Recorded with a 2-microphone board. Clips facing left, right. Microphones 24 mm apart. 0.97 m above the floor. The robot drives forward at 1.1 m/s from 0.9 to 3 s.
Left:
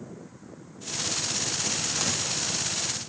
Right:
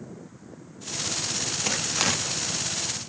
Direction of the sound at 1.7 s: 45° right (ahead or behind).